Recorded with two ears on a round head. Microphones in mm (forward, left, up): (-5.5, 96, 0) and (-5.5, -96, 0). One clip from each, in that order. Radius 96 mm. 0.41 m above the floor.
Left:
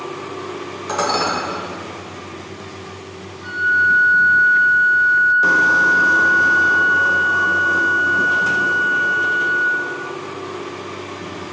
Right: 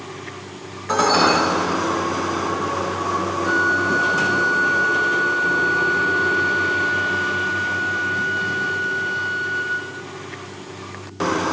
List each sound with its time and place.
0.9 s dishes clattering: 25° left (ahead or behind), 1.0 m
3.4 s a flute: 15° left (ahead or behind), 0.7 m